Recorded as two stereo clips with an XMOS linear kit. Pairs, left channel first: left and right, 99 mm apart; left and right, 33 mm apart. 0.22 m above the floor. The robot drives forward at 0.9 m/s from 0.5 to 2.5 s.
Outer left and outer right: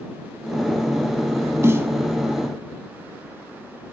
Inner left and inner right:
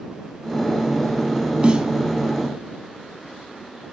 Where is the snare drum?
25° right (ahead or behind), 0.8 m; by 1.9 s 20° right (ahead or behind), 1.0 m.